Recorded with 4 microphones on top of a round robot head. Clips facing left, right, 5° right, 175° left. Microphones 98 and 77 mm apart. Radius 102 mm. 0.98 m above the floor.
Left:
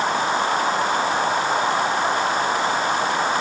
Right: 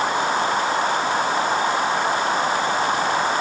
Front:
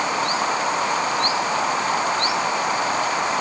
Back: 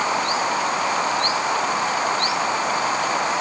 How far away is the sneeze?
No sneeze in this recording.